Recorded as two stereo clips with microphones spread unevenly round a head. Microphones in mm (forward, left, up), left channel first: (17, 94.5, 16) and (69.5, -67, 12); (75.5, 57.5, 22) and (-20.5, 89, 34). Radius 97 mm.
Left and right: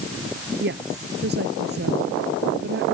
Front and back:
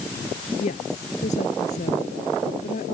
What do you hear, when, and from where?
0.6 s a woman speaking: 45° right